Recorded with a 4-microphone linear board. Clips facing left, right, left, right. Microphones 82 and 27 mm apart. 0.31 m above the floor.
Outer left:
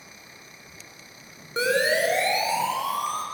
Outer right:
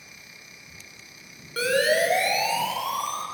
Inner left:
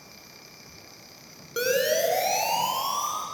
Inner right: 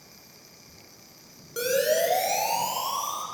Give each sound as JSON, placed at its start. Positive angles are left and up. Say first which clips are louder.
{"t": 1.6, "sound": "a siren", "louder": "outer right 1 dB, even", "side_deg": 20, "distance_m": 4.5}